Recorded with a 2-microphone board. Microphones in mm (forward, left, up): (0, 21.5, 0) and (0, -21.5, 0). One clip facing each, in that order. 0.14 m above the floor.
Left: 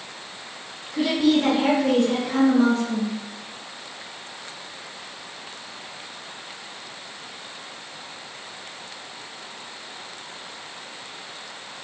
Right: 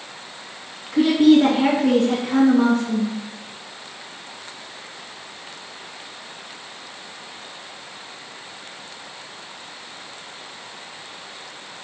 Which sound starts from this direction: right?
A woman speaking, at 0.9 s.